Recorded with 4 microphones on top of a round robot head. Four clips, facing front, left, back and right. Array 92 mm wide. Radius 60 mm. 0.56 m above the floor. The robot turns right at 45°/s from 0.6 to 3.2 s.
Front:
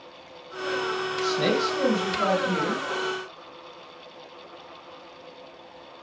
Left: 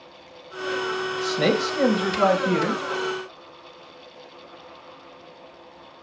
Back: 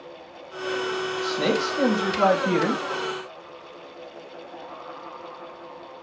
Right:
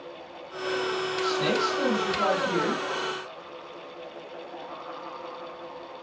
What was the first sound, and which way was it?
A man speaking, 80° left.